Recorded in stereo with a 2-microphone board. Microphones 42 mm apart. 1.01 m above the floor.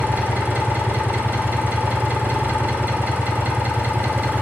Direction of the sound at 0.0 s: 45° right (ahead or behind).